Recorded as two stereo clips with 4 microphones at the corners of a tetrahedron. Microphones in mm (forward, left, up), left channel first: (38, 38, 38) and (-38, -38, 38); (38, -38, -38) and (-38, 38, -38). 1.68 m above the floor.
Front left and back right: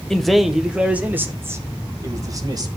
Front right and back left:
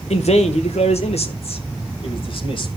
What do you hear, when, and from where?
0.1 s a man speaking: 40° right, 1.6 m; by 2.7 s 85° right, 2.5 m